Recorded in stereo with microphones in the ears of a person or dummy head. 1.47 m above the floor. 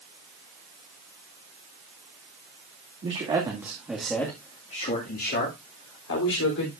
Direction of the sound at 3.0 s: 35° right (ahead or behind).